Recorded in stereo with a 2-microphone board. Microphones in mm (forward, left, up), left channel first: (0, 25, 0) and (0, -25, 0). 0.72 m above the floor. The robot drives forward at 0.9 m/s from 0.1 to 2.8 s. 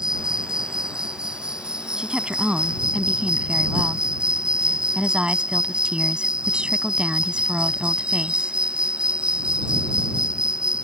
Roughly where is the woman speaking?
Centre.